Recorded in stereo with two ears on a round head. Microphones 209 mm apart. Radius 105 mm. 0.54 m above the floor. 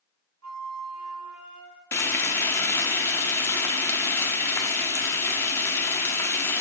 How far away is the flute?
About 1.1 m.